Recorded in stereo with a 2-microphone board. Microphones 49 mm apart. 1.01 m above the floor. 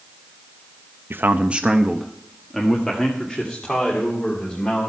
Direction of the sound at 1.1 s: 50° right (ahead or behind).